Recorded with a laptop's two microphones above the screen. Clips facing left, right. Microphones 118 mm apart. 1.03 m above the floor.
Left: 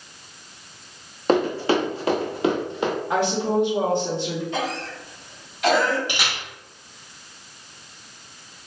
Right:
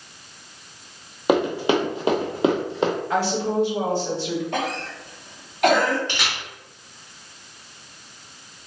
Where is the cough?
55° right (ahead or behind), 1.2 m.